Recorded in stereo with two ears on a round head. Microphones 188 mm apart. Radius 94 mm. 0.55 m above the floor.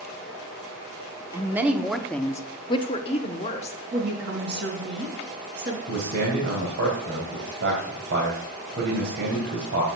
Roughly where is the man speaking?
Right.